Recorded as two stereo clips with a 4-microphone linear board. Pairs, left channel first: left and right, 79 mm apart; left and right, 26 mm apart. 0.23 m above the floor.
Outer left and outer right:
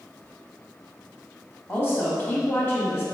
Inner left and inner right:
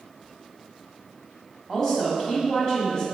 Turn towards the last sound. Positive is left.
turn(degrees=30)  # may be behind; listen again after turning